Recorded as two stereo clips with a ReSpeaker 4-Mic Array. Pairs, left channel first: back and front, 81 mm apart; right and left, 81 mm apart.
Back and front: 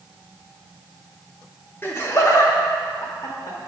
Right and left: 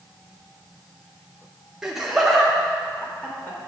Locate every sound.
1.8 s laughter: 160° left, 0.9 m; by 3.6 s 155° right, 1.5 m